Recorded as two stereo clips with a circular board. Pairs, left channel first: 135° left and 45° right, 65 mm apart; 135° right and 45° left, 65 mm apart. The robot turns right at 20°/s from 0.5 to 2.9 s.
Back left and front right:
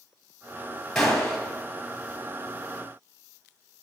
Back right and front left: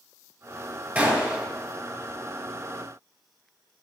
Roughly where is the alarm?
I don't hear an alarm.